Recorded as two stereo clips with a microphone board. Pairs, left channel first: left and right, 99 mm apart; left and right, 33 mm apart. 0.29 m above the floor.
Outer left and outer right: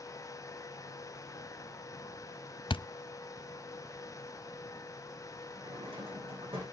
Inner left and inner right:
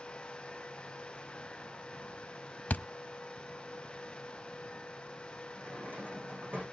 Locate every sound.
2.7 s a thud: 60° left (ahead or behind), 0.5 m
5.5 s a drawer: 70° right (ahead or behind), 9 m